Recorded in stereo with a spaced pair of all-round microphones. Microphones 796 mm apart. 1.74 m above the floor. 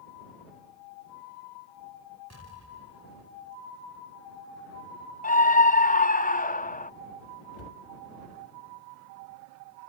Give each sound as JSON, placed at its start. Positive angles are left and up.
{"t": 2.3, "sound": "an explosion", "side_deg": 20}
{"t": 5.2, "sound": "a scream", "side_deg": 10}
{"t": 7.5, "sound": "a cupboard door", "side_deg": 60}